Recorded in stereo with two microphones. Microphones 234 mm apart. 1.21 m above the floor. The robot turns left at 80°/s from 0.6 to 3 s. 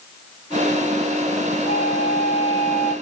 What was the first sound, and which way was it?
A flute, 85° left.